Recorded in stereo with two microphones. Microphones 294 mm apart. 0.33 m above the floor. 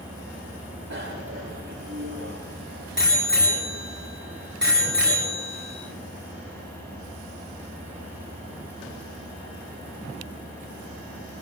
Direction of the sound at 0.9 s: 40° right (ahead or behind).